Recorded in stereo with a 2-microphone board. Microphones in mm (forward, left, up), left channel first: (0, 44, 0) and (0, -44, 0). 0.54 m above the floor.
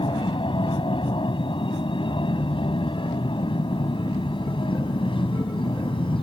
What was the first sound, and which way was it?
An aircraft, 70° left (ahead or behind).